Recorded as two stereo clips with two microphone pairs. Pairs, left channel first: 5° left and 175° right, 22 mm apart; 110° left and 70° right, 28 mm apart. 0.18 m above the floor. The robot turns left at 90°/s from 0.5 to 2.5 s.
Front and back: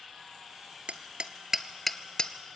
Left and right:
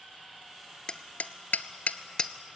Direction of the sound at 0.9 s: 170° left.